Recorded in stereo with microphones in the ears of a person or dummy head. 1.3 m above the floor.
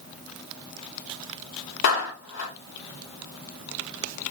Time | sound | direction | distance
1.8 | a clap | 60° left (ahead or behind) | 2.5 m